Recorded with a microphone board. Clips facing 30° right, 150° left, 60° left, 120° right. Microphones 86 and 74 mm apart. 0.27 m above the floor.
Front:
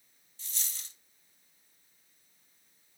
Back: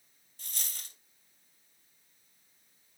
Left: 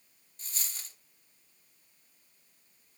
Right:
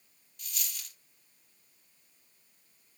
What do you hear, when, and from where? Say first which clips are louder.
0.4 s a dropped coin: back 1 dB, right 1 dB; 115° left, 1.1 m